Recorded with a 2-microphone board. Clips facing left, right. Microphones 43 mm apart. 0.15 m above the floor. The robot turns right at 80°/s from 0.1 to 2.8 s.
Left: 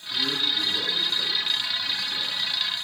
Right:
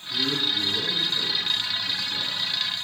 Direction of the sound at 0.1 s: Centre (ahead or behind).